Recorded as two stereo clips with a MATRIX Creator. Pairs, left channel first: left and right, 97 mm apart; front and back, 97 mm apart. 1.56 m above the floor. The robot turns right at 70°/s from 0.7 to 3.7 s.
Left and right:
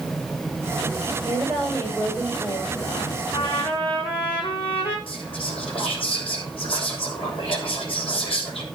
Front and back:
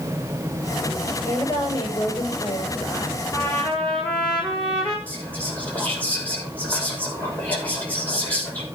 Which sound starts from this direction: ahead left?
A trumpet, at 3.3 s.